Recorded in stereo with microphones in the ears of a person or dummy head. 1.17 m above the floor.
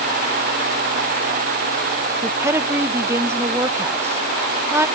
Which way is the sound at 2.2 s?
10° right (ahead or behind).